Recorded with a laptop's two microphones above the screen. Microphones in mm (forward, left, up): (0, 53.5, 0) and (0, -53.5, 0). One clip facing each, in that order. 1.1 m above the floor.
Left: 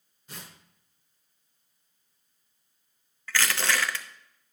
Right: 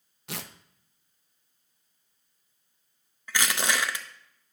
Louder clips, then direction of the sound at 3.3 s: Even; 15° right (ahead or behind).